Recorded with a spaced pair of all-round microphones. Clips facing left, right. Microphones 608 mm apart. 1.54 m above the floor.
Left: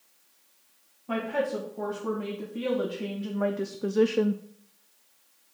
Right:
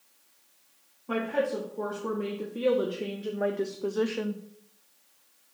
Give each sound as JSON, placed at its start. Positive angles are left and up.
{"t": 1.1, "sound": "a woman speaking", "side_deg": 5, "distance_m": 2.5}